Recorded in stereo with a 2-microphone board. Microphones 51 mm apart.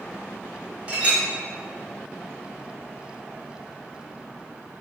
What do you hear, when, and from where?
0.9 s a clink: 25° right (ahead or behind), 0.8 m